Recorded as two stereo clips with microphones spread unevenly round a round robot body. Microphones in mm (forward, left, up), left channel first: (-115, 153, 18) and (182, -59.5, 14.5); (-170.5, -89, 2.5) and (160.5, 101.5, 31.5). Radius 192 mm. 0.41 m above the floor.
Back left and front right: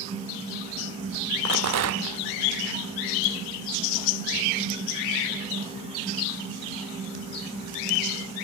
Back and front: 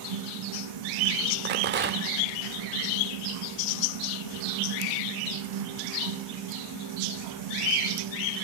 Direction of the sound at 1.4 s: 25° right.